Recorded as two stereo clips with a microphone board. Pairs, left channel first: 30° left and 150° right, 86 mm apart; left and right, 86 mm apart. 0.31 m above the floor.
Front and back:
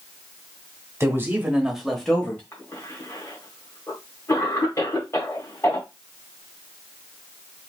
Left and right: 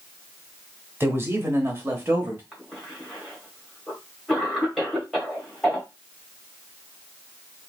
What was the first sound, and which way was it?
A man speaking, 130° right.